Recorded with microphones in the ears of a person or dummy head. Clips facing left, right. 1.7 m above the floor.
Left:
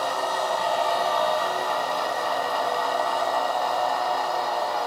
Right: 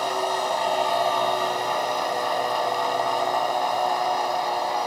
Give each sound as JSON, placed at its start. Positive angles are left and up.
{"t": 0.0, "sound": "a machine running", "side_deg": -15, "distance_m": 2.0}